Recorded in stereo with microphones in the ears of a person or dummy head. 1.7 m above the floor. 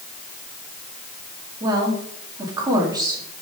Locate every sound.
1.6 s a woman speaking: 25° right (ahead or behind), 4 m